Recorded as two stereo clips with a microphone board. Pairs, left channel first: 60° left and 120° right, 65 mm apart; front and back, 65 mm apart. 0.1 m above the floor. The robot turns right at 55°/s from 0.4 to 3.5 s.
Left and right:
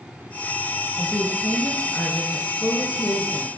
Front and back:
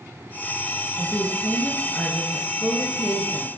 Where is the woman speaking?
20° right, 1.2 m; by 3.5 s 120° left, 1.2 m.